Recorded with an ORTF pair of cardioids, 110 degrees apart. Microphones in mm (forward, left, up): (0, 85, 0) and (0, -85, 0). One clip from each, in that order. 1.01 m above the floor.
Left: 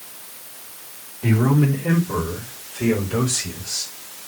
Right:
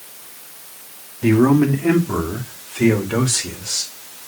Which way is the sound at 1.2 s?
40° right.